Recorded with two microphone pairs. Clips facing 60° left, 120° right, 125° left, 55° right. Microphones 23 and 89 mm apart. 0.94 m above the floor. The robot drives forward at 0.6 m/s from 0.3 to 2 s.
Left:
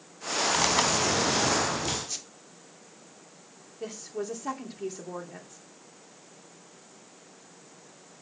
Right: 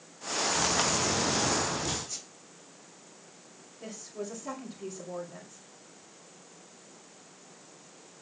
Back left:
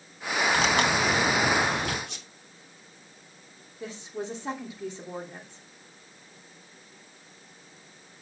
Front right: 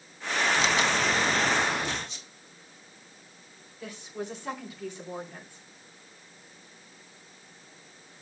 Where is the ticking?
No ticking in this recording.